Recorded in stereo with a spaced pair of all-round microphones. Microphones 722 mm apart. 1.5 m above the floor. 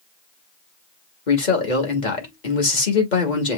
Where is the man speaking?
80° left, 1.8 m.